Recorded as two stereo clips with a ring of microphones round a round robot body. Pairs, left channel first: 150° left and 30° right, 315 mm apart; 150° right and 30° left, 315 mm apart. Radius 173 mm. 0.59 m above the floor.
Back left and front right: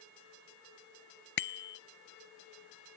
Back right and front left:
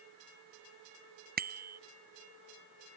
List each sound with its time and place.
1.4 s a bicycle bell: 95° left